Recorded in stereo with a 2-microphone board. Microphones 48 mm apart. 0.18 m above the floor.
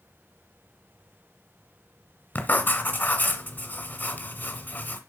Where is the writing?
40° left (ahead or behind), 1.5 m.